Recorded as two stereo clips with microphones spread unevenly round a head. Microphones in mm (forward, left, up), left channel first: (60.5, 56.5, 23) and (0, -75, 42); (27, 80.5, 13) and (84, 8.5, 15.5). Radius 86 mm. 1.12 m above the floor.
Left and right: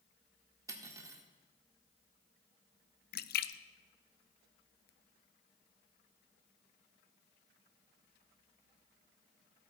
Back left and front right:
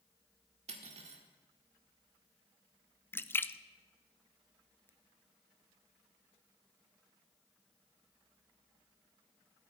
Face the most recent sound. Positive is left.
turn(degrees=60)